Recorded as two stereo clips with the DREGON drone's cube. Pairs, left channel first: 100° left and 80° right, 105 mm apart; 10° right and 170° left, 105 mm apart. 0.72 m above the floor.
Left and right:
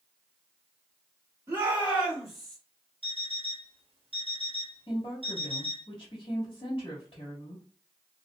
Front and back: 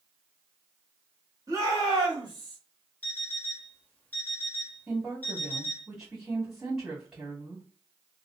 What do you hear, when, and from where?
1.5 s a shout: 140° right, 1.5 m; by 2.6 s 175° right, 1.2 m
3.0 s an alarm clock: 85° right, 0.8 m
4.9 s a woman speaking: 90° left, 1.3 m